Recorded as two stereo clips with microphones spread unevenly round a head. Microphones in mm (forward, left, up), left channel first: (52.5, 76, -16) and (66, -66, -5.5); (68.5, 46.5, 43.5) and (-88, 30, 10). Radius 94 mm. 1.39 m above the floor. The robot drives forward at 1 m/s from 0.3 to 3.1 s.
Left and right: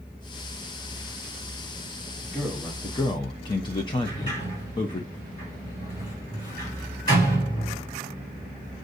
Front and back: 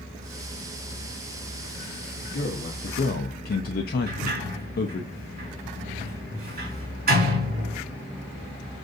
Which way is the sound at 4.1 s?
165° left.